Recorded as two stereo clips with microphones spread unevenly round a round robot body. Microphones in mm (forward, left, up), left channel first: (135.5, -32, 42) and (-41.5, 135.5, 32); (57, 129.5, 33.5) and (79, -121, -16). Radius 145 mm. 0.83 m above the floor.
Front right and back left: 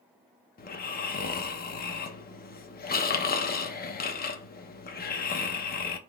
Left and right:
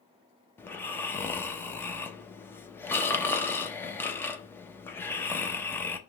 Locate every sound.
0.6 s snoring: 10° left, 0.7 m